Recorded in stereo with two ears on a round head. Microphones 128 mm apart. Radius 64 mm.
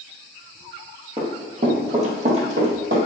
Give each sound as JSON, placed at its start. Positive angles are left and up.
{"t": 1.2, "sound": "running footsteps", "side_deg": -35, "distance_m": 1.8}